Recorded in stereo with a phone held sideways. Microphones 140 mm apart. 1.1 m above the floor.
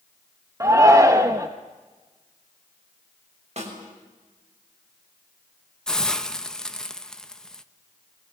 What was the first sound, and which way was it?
A shout, 20° right (ahead or behind).